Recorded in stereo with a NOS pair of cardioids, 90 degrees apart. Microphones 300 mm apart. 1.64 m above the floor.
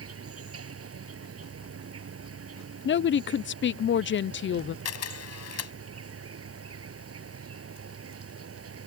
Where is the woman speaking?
40° left.